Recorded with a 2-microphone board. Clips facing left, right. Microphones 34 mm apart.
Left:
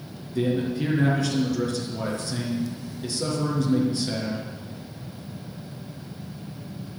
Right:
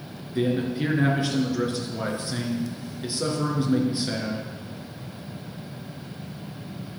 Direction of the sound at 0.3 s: 25° right (ahead or behind).